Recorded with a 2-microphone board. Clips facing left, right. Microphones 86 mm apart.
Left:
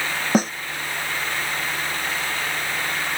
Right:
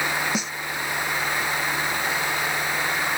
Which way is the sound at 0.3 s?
40° left (ahead or behind).